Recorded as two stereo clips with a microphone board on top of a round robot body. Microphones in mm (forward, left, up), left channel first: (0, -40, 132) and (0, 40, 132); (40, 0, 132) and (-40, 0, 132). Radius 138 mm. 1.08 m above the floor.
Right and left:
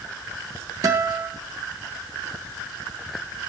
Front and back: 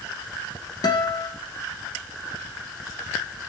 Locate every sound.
0.8 s a guitar: 40° left, 0.9 m